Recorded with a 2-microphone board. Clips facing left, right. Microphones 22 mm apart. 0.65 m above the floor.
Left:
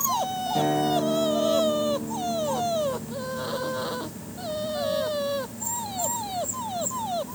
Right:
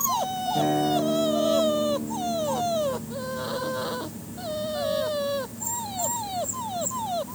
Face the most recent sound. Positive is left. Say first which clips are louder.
# even
turn(degrees=25)  # may be behind; listen again after turning